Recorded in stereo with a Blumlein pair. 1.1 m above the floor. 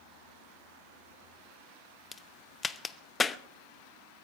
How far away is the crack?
About 0.7 m.